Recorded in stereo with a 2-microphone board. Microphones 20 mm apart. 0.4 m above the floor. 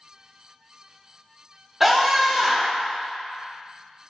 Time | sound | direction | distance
1.8 | a scream | 10° right (ahead or behind) | 0.8 m